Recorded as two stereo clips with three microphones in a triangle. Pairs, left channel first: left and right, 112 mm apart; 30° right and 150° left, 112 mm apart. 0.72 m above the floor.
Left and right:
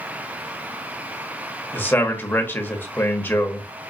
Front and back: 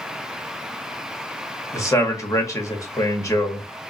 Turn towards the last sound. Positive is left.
turn(degrees=25)